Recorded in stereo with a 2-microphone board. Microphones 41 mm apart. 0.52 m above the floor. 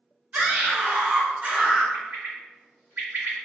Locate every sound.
0.3 s a scream: 40° right (ahead or behind), 1.1 m; by 1.8 s 20° right (ahead or behind), 0.8 m
1.9 s a bird: 55° right (ahead or behind), 1.2 m